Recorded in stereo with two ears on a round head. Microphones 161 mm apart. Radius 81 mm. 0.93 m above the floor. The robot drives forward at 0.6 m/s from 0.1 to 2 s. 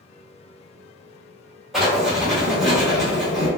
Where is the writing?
Centre (ahead or behind), 1.4 m.